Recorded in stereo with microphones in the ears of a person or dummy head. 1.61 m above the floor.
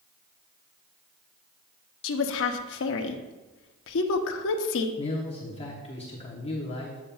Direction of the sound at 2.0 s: 70° left (ahead or behind).